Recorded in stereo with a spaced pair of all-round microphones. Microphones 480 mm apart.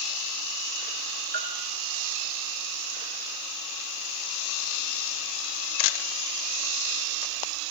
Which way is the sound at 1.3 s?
55° right (ahead or behind).